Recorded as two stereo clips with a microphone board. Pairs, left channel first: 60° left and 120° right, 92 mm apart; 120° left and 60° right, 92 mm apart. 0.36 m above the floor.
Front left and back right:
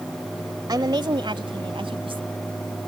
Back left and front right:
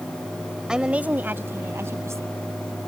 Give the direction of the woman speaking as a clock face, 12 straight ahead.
5 o'clock.